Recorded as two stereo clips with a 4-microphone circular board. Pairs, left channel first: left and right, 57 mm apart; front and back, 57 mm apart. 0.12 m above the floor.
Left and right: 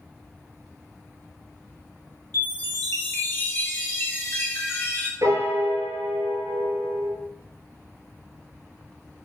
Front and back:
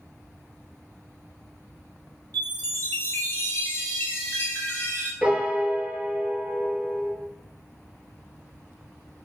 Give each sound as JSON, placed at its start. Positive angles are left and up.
{"t": 2.3, "sound": "a chime", "azimuth_deg": 45, "distance_m": 1.1}
{"t": 5.2, "sound": "a piano", "azimuth_deg": -100, "distance_m": 0.5}